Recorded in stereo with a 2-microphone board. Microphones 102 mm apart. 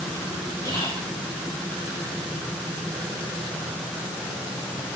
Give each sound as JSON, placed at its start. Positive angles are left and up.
{"t": 0.7, "sound": "whispering", "side_deg": 35, "distance_m": 1.2}